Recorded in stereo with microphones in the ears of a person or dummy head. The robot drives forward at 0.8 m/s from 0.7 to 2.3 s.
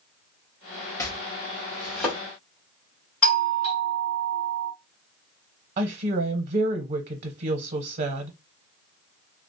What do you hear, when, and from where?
1.0 s chopping: 20° left (ahead or behind), 0.6 m; by 2.2 s 10° left (ahead or behind), 1.5 m
3.2 s a doorbell: 10° left (ahead or behind), 2.5 m
5.8 s a woman speaking: 45° right (ahead or behind), 0.7 m